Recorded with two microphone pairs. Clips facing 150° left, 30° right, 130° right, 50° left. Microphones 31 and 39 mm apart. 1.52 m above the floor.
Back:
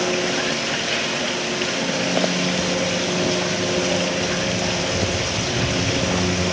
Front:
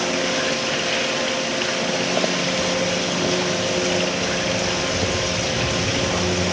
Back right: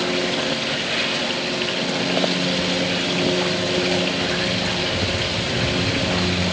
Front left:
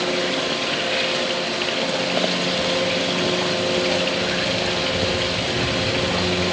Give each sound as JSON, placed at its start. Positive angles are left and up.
{"t": 2.5, "sound": "footsteps", "azimuth_deg": 115, "distance_m": 1.5}